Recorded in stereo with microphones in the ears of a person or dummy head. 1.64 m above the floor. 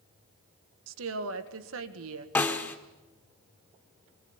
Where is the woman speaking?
85° right, 2.0 m.